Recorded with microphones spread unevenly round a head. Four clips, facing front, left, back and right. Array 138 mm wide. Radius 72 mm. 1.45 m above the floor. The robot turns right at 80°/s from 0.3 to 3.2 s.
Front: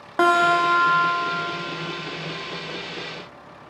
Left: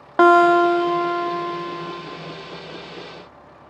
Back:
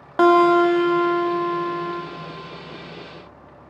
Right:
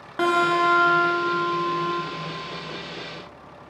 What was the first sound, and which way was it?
A guitar, 90° left.